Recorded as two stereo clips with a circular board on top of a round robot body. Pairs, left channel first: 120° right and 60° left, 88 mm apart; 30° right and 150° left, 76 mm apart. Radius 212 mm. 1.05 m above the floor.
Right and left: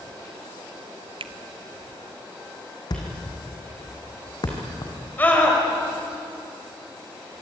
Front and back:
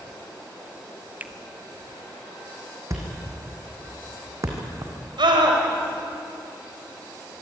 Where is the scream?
170° left, 5.5 m.